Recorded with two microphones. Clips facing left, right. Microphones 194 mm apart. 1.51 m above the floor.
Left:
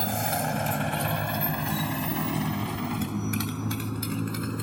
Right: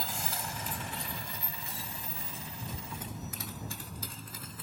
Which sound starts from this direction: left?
A motorcycle, at 0.0 s.